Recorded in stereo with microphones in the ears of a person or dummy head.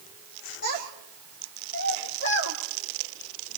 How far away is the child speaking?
About 5 m.